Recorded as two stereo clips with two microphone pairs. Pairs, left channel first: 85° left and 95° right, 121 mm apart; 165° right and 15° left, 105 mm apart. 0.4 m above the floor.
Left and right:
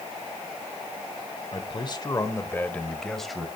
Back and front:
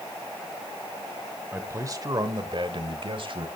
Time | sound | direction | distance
1.5 | a man speaking | 75° left | 1.3 m